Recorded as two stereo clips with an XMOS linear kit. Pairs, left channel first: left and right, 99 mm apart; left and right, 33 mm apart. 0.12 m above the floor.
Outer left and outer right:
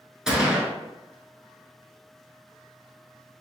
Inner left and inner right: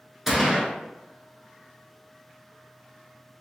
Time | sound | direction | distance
0.3 | a gunshot | 5° right (ahead or behind) | 0.8 m